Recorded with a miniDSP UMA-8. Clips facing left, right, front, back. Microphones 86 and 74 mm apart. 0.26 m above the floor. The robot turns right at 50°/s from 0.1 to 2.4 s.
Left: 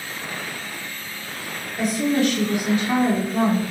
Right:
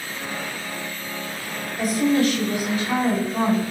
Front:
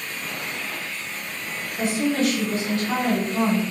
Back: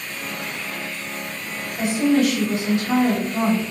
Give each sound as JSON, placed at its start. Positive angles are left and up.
{"t": 1.8, "sound": "a woman speaking", "azimuth_deg": 105, "distance_m": 1.0}